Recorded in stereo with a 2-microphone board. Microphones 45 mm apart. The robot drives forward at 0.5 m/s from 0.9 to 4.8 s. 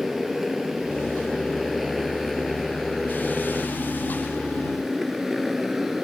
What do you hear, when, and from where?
0.0 s a motorcycle: 5° right (ahead or behind)